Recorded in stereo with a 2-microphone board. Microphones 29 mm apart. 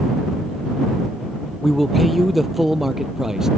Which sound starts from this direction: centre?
A man speaking, at 1.6 s.